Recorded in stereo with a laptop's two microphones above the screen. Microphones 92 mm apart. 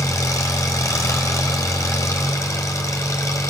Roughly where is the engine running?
Left.